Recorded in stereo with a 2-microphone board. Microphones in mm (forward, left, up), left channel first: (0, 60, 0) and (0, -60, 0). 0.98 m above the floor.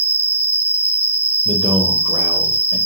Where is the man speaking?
55° right (ahead or behind), 3.5 m.